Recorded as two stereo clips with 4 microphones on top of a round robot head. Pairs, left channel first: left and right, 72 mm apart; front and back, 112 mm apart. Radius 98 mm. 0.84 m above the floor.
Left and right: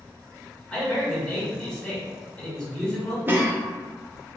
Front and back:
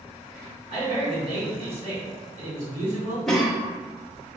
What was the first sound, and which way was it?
A man speaking, 170° left.